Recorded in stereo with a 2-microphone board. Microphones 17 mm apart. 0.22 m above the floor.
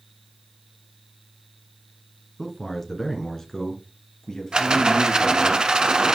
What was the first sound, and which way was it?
A man speaking, 15° left (ahead or behind).